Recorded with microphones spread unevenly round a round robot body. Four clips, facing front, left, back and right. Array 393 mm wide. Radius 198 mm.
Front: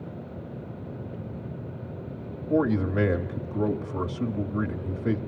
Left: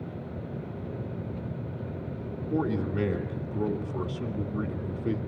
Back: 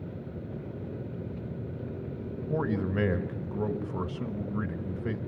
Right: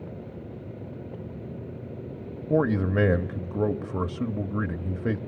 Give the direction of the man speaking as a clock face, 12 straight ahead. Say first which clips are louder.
Right 5 dB, front 6 dB; 3 o'clock.